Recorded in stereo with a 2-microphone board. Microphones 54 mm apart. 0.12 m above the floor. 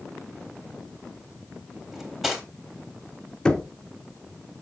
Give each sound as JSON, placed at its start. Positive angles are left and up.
{"t": 1.9, "sound": "cutlery clinking", "side_deg": -10, "distance_m": 2.0}
{"t": 3.5, "sound": "knocking", "side_deg": 15, "distance_m": 0.8}